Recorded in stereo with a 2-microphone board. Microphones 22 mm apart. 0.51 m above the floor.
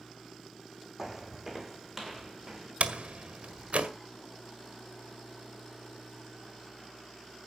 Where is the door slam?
65° right (ahead or behind), 1.8 m.